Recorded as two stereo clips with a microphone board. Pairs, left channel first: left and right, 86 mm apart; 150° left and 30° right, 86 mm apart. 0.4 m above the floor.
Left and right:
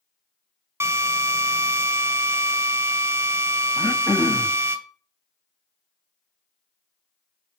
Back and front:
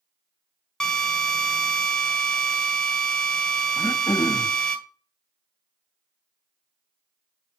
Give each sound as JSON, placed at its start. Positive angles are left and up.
{"t": 0.8, "sound": "a drill", "azimuth_deg": -130, "distance_m": 1.6}
{"t": 3.8, "sound": "throat clearing", "azimuth_deg": 135, "distance_m": 0.7}